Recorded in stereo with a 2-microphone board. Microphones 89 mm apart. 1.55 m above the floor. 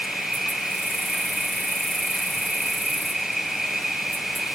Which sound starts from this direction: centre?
An insect, at 0.0 s.